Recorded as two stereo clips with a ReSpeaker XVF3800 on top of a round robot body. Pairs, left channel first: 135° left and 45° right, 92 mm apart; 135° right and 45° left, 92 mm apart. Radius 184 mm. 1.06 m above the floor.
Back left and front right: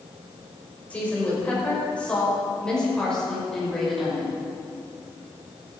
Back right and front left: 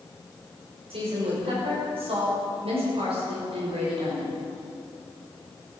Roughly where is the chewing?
No chewing in this recording.